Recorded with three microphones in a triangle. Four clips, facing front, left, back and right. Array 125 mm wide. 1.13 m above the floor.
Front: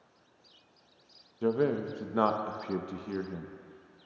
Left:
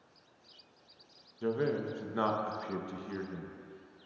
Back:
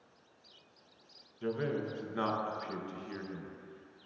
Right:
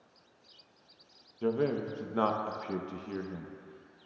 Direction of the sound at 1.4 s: 25° right.